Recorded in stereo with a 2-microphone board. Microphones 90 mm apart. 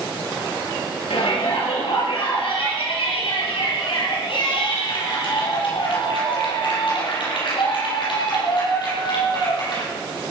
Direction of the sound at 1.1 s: 75° left (ahead or behind).